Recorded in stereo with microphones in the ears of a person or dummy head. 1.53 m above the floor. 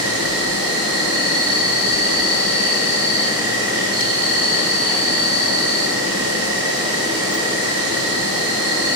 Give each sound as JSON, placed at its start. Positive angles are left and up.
{"t": 0.0, "sound": "an insect", "side_deg": -80, "distance_m": 2.5}